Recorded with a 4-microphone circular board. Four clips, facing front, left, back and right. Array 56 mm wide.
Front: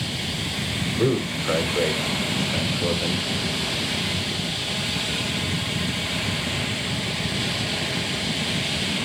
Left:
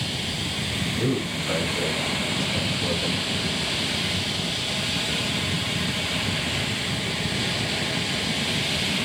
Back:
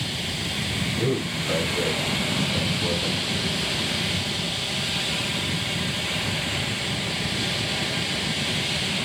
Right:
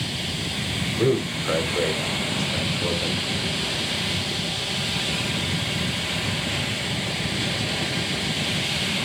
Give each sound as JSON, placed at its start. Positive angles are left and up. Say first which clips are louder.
{"t": 1.0, "sound": "a man speaking", "louder": "right 6 dB, front 5 dB", "azimuth_deg": -35, "distance_m": 4.5}